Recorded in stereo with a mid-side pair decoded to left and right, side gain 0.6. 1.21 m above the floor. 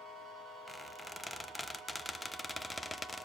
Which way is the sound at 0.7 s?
10° left.